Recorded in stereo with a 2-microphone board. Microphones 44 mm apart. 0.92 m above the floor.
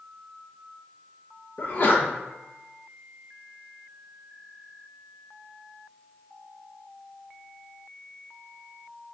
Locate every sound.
1.6 s a sneeze: 45° left (ahead or behind), 0.8 m